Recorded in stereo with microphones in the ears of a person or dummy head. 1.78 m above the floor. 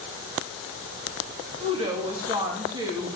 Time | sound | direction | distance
1.6 | a woman speaking | 35° right (ahead or behind) | 3 m